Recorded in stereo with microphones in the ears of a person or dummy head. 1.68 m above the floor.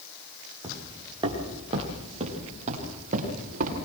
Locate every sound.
0.6 s footsteps: 20° right (ahead or behind), 7 m; by 3.8 s 45° right (ahead or behind), 10 m